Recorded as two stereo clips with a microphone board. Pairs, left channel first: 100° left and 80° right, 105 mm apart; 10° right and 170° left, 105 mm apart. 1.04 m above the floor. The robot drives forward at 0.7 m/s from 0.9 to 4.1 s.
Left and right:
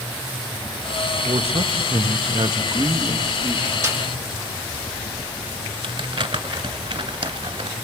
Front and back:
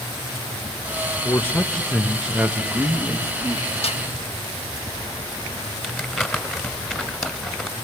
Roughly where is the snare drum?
Ahead.